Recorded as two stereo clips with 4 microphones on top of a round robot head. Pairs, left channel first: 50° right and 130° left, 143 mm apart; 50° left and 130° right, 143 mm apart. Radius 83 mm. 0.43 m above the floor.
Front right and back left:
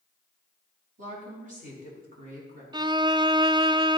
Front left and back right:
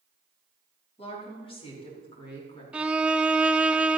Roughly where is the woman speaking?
Left.